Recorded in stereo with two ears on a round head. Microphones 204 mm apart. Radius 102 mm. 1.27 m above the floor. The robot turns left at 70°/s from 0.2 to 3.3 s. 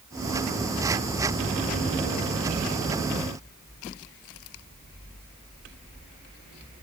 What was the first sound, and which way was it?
Only background noise.